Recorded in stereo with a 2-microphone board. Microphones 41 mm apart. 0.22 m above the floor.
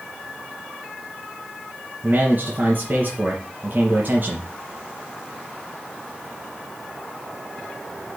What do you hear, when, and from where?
2.0 s a man speaking: 40° right (ahead or behind), 3 m